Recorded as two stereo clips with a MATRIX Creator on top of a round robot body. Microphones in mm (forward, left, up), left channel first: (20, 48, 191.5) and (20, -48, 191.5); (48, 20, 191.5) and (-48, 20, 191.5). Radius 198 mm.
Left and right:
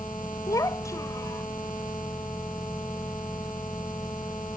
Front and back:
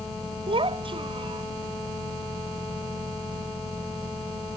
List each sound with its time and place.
0.5 s a child speaking: 150° left